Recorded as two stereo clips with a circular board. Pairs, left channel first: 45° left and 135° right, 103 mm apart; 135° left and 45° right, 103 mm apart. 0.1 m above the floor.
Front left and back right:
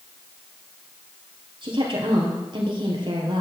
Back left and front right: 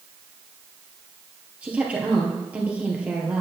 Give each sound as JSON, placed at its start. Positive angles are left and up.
{"t": 1.6, "sound": "a woman speaking", "azimuth_deg": -120, "distance_m": 1.8}